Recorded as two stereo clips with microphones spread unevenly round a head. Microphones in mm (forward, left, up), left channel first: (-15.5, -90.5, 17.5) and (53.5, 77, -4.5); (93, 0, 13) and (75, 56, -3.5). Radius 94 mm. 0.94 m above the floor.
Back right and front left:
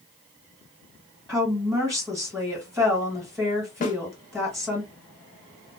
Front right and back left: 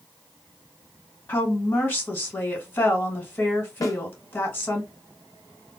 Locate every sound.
1.3 s a woman speaking: 20° right, 1.3 m
3.8 s a snare drum: 70° right, 0.7 m